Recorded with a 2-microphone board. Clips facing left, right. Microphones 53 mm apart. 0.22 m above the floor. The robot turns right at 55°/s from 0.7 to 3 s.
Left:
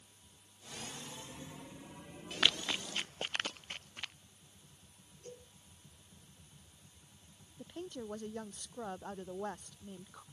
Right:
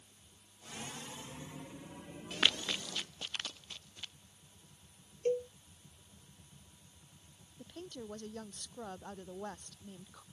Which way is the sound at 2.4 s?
5° right (ahead or behind).